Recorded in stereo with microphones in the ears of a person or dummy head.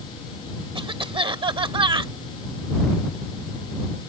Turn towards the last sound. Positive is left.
turn(degrees=-30)  # may be behind; listen again after turning